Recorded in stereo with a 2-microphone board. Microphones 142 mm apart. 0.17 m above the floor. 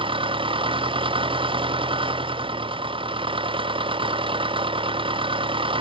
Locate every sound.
0.0 s an engine running: 35° right (ahead or behind)